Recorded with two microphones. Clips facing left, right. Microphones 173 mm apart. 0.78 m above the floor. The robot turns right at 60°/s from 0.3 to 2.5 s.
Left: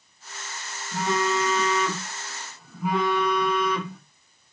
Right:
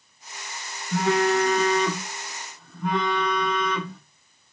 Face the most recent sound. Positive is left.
turn(degrees=5)